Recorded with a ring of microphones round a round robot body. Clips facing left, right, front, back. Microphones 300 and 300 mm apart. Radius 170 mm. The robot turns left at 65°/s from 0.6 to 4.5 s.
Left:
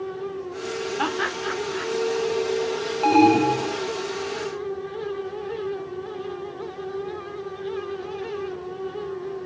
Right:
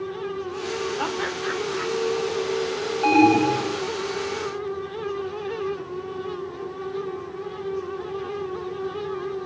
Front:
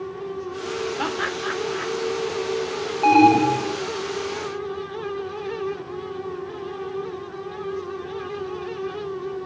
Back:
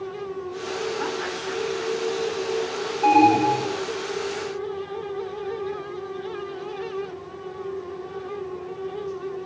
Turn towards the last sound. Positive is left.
turn(degrees=-70)